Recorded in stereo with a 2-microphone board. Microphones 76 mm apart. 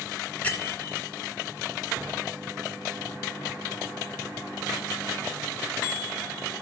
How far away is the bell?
About 2 m.